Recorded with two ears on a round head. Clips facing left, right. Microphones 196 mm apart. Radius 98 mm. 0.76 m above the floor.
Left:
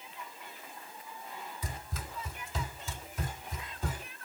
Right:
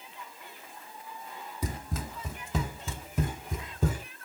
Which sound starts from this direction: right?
Running footsteps, at 1.6 s.